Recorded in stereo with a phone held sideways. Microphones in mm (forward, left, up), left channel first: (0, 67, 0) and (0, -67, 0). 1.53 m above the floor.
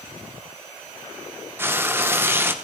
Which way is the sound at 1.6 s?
15° right (ahead or behind).